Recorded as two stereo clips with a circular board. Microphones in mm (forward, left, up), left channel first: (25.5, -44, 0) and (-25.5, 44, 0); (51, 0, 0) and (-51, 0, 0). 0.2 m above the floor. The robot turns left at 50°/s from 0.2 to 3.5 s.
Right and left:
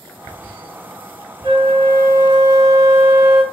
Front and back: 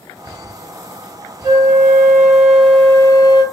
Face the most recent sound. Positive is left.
turn(degrees=30)